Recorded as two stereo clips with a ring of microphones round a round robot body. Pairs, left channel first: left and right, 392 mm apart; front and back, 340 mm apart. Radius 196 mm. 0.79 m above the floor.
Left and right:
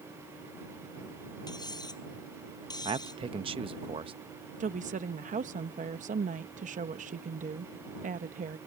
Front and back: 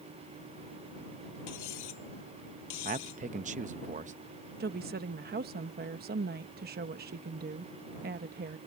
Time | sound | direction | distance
1.5 | cutlery clinking | 10° left | ?
2.9 | a man speaking | 150° right | ?
4.6 | a woman speaking | 145° right | ?